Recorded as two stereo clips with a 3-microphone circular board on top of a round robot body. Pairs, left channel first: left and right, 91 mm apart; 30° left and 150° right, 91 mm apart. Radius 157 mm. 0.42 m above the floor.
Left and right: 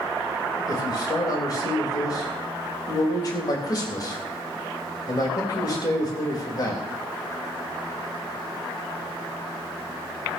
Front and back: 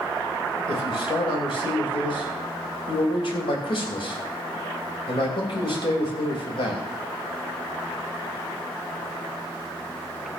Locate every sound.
0.7 s a man speaking: 45° left, 3.5 m